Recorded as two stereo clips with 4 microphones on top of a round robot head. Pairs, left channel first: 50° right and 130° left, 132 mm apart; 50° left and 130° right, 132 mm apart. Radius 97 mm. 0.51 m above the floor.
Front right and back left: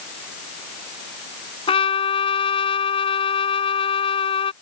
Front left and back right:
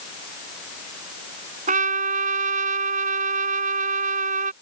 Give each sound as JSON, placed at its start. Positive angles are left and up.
{"t": 1.7, "sound": "a trumpet", "azimuth_deg": -100}